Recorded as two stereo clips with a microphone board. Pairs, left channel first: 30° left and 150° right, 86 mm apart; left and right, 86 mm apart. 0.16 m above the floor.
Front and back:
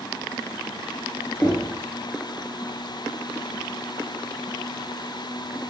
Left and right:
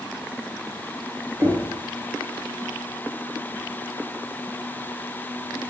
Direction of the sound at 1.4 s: 35° right.